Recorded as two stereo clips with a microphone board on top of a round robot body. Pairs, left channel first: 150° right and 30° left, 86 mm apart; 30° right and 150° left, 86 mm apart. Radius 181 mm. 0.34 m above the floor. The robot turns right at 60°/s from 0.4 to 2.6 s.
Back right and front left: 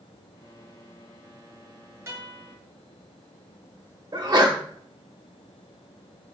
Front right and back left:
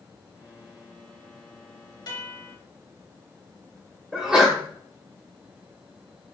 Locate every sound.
2.1 s a guitar: 20° right, 2 m; by 2.5 s 10° left, 2 m
4.1 s a sneeze: 70° left, 1.9 m